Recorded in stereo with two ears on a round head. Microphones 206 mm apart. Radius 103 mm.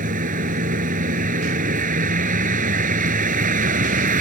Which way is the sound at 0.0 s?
35° right (ahead or behind).